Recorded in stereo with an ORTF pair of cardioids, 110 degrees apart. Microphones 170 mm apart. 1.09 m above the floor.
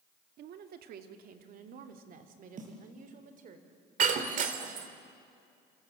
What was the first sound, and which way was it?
A woman speaking, 70° right.